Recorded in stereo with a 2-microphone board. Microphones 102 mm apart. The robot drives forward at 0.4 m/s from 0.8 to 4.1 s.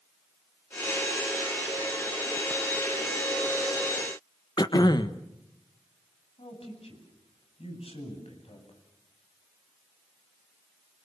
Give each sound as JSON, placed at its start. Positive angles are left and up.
{"t": 4.6, "sound": "throat clearing", "side_deg": 45, "distance_m": 1.3}
{"t": 6.4, "sound": "a man speaking", "side_deg": 75, "distance_m": 9.5}